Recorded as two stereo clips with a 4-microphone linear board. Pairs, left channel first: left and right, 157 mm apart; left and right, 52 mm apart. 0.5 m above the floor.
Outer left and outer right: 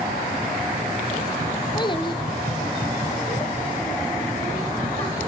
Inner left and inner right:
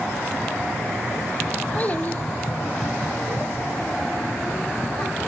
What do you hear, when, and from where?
1.8 s a child speaking: 30° left (ahead or behind), 0.6 m; by 5.3 s 15° left (ahead or behind), 3 m